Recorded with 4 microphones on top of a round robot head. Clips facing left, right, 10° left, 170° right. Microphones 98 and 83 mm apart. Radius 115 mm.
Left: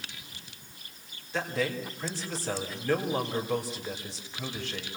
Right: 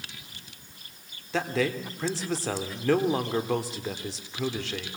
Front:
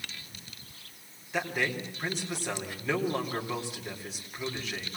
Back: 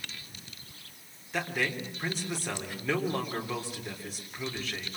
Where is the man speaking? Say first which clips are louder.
Right 3 dB, front 1 dB; 80° right, 4 m.